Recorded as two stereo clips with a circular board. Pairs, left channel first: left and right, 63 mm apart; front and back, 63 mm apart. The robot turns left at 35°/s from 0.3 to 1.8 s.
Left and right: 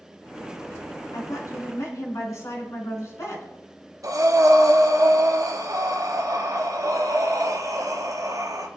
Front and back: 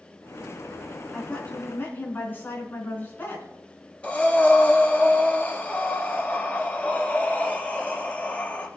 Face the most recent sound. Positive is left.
turn(degrees=-70)